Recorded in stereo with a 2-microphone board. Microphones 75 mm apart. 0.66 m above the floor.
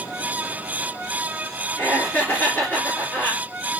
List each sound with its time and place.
1.8 s laughter: 20° left (ahead or behind), 1.5 m